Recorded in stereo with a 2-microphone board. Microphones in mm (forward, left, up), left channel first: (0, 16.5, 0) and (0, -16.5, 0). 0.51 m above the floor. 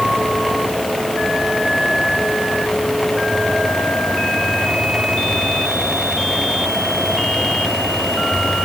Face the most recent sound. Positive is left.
No sound to turn to.